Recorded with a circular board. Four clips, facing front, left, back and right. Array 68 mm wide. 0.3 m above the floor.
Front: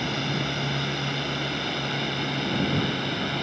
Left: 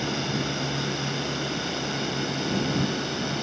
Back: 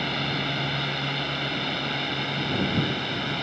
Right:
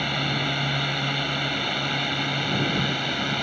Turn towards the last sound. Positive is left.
turn(degrees=-95)